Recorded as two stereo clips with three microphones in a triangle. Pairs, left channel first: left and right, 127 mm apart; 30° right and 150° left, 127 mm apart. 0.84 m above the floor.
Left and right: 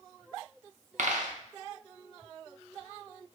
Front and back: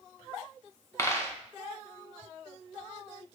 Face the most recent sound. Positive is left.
turn(degrees=-100)